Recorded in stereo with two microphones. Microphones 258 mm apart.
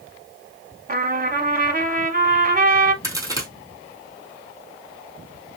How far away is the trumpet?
About 0.7 m.